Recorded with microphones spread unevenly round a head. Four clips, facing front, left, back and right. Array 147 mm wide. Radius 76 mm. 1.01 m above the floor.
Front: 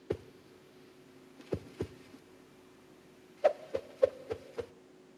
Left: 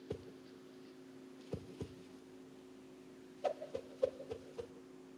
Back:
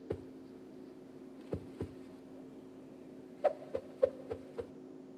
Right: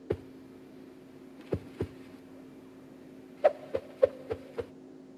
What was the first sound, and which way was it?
A whoosh, 55° right.